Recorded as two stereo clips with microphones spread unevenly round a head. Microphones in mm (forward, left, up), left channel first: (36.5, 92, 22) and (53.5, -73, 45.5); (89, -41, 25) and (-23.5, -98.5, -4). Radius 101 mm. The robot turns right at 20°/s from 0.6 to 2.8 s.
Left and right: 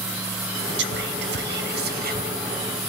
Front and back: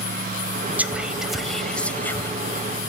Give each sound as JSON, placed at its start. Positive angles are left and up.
{"t": 0.8, "sound": "whispering", "azimuth_deg": -80, "distance_m": 0.7}